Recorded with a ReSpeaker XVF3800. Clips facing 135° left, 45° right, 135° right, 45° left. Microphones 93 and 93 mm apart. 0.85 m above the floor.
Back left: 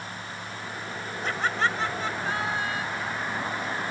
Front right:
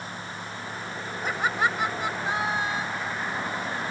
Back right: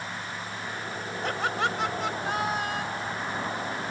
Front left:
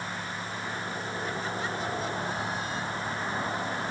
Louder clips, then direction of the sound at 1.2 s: Front right 1 dB, back right 8 dB; 125° right.